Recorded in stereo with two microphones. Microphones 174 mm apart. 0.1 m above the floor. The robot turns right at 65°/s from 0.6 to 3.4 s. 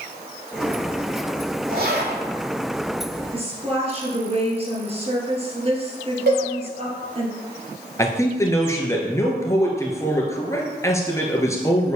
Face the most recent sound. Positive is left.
turn(degrees=15)  # may be behind; listen again after turning